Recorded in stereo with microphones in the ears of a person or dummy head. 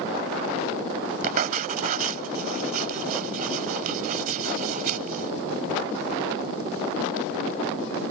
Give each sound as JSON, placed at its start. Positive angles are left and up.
{"t": 1.2, "sound": "writing", "side_deg": -50}